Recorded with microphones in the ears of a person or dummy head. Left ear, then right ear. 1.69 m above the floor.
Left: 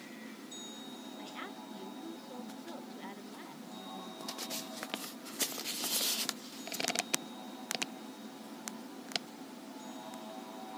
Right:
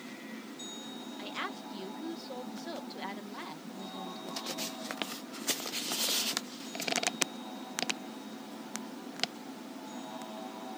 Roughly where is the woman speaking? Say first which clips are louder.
Right 8 dB; right.